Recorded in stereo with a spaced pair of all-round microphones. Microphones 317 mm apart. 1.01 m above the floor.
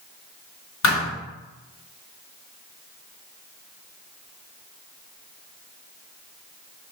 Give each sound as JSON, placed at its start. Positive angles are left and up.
{"t": 0.8, "sound": "a thud", "side_deg": 60, "distance_m": 1.6}